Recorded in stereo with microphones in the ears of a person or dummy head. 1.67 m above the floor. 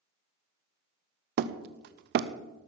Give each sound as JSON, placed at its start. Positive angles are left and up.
{"t": 1.4, "sound": "hammering", "side_deg": -60, "distance_m": 0.6}